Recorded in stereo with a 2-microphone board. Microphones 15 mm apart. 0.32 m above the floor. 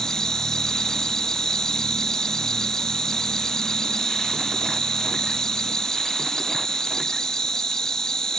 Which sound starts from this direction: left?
An insect, at 0.0 s.